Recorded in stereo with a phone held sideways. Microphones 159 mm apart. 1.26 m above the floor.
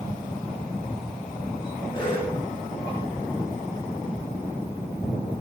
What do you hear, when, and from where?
1.9 s a cough: 30° left (ahead or behind), 7 m